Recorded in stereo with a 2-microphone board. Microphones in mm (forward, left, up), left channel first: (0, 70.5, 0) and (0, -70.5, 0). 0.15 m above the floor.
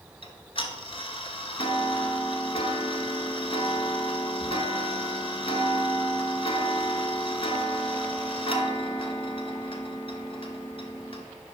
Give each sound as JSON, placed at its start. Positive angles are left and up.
{"t": 0.2, "sound": "ticking", "side_deg": 40, "distance_m": 0.8}